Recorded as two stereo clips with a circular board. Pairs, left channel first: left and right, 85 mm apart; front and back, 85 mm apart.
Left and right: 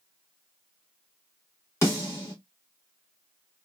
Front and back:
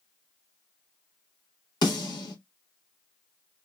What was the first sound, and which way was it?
A snare drum, 30° left.